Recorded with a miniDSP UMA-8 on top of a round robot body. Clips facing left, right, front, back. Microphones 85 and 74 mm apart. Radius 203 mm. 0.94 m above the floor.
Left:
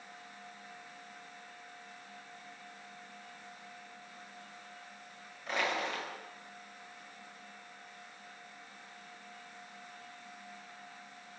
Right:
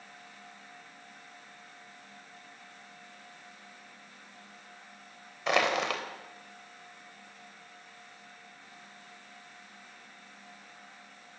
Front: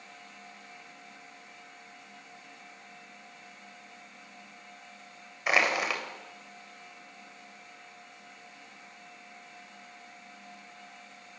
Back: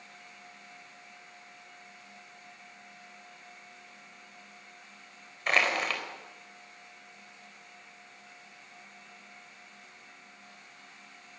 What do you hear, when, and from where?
5.5 s crushing: 80° right, 3.5 m